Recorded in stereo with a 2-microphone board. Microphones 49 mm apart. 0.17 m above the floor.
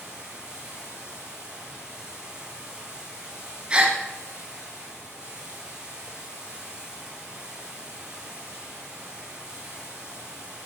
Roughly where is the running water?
Centre.